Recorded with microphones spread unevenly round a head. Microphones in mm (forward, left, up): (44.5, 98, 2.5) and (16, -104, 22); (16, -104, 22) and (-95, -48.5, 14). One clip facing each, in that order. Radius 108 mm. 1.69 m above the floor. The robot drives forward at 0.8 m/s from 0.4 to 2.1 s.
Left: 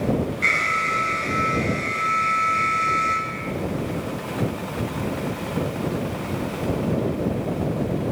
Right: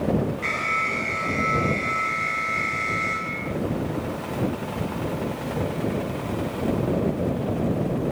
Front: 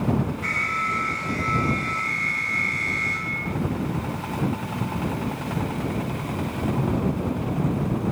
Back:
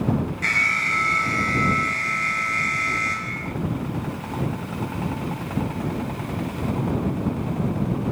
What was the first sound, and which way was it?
An alarm, 145° left.